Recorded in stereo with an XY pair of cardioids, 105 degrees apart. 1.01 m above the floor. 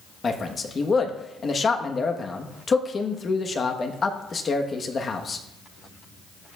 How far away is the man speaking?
About 1.1 m.